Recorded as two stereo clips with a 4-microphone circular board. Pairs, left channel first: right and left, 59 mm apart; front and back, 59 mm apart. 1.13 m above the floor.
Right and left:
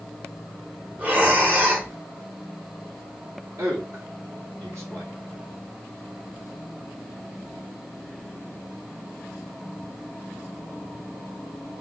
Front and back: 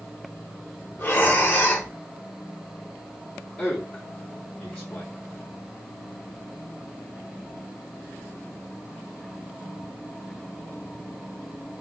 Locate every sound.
1.0 s breathing: 45° left, 1.1 m
3.6 s a man speaking: 75° left, 1.5 m